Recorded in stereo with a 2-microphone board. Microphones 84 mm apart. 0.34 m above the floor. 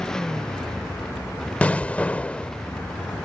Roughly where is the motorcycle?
Centre.